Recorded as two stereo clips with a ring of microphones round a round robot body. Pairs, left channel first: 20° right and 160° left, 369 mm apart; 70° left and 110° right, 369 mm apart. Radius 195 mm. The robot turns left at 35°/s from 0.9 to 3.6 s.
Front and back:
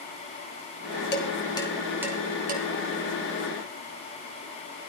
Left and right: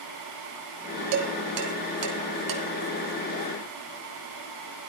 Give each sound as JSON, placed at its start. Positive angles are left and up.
{"t": 1.1, "sound": "dishes clattering", "azimuth_deg": -85, "distance_m": 2.5}